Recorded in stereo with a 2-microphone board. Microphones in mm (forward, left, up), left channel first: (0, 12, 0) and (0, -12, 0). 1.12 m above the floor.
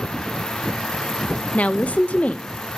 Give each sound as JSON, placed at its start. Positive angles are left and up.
{"t": 1.5, "sound": "a woman speaking", "side_deg": 70, "distance_m": 0.7}